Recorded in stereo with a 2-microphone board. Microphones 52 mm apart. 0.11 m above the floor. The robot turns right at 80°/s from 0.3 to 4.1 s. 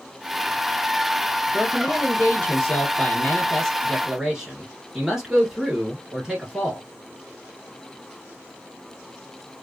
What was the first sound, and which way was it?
A man speaking, centre (ahead or behind).